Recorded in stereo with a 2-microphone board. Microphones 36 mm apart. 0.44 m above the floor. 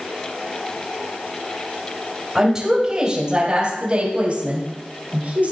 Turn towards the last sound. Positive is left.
turn(degrees=-45)  # may be behind; listen again after turning